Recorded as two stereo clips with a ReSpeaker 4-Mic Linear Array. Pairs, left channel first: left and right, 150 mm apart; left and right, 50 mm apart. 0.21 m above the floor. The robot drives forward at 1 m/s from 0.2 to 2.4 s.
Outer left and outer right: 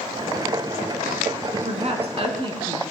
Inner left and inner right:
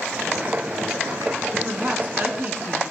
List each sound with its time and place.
1.6 s a woman speaking: 45° right (ahead or behind), 1.7 m; by 2.8 s 35° right (ahead or behind), 2 m